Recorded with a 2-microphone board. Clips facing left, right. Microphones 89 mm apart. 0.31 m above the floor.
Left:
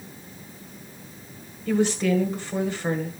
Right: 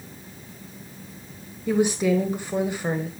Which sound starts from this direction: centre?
A woman speaking, at 1.7 s.